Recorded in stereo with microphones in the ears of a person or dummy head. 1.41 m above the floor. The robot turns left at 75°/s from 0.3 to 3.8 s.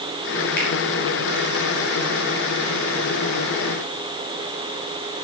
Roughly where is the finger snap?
Left.